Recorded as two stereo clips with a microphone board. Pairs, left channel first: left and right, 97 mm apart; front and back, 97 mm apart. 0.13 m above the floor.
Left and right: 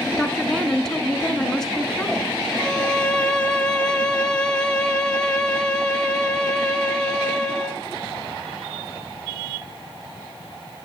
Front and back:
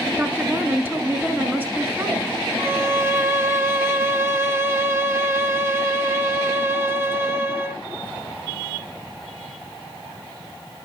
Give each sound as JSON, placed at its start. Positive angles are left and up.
{"t": 0.2, "sound": "a woman speaking", "azimuth_deg": 160, "distance_m": 1.5}
{"t": 2.6, "sound": "a violin", "azimuth_deg": 155, "distance_m": 1.5}